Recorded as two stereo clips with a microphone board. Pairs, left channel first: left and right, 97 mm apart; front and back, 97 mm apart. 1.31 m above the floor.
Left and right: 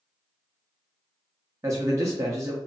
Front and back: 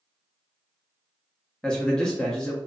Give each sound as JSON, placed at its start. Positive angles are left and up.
{"t": 1.6, "sound": "a man speaking", "azimuth_deg": -75, "distance_m": 0.5}